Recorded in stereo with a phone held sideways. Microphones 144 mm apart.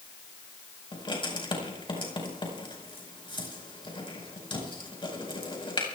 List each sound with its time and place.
0.9 s writing: 35° left (ahead or behind), 4.5 m